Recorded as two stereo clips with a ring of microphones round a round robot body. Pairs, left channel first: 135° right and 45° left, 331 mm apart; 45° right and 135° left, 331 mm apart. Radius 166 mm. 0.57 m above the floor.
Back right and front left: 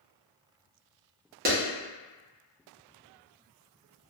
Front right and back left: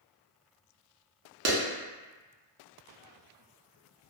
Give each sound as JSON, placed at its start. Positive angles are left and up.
{"t": 1.4, "sound": "a clap", "azimuth_deg": 105, "distance_m": 0.8}